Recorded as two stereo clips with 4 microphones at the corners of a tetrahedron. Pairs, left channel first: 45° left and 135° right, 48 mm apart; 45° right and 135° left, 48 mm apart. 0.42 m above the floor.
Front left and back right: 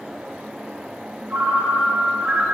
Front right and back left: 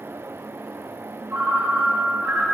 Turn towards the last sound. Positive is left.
turn(degrees=165)